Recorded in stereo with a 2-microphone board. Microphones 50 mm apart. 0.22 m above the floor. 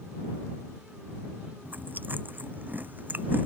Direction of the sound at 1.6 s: 40° right (ahead or behind).